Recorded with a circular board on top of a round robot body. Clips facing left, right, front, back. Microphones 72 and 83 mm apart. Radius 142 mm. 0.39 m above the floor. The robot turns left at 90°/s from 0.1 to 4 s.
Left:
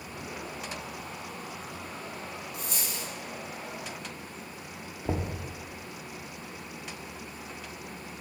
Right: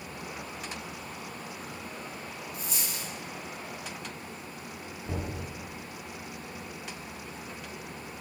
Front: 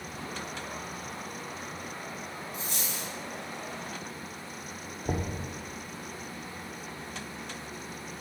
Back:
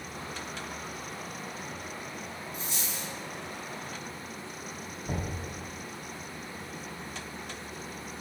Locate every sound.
2.5 s a dropped coin: 65° left, 1.6 m; by 3.1 s 15° left, 1.6 m
5.0 s knocking: 45° left, 0.8 m